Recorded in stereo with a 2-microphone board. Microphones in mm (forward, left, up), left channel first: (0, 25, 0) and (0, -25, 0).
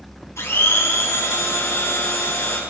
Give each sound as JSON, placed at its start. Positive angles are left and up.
{"t": 0.4, "sound": "a blender", "side_deg": 75, "distance_m": 2.5}